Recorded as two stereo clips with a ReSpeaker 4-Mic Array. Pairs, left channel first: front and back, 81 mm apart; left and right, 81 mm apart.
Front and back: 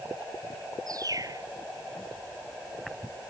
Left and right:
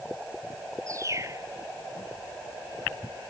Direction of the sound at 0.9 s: 140° right.